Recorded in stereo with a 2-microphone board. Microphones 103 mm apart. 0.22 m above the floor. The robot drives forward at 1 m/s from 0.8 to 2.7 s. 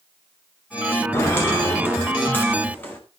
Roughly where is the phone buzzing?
No phone buzzing in this recording.